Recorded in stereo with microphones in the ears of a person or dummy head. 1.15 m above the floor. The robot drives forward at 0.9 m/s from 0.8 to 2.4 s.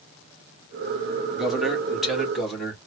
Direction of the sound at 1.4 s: Centre (ahead or behind).